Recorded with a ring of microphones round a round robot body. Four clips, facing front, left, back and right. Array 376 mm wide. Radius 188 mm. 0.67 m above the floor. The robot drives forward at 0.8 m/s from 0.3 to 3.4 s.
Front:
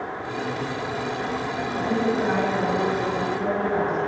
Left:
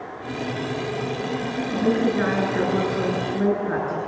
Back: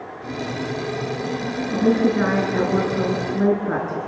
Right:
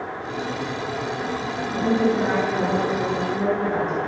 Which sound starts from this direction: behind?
A woman speaking, at 1.7 s.